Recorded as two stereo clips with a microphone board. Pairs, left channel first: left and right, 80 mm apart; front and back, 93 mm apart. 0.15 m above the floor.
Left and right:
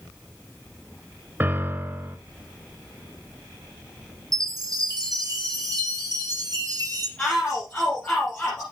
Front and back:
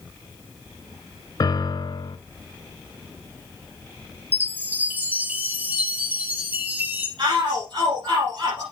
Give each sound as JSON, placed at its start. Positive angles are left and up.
{"t": 1.4, "sound": "a piano", "azimuth_deg": -30, "distance_m": 0.6}
{"t": 4.3, "sound": "a chime", "azimuth_deg": -115, "distance_m": 2.5}
{"t": 7.2, "sound": "a shout", "azimuth_deg": 160, "distance_m": 5.0}